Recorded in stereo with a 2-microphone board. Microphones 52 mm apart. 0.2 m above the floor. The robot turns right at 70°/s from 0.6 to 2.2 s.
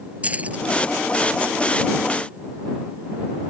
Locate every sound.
0.2 s keys jangling: 30° right (ahead or behind); by 0.7 s 25° right (ahead or behind)